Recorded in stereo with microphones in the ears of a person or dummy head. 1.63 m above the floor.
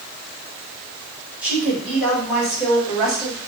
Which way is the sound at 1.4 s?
5° right (ahead or behind).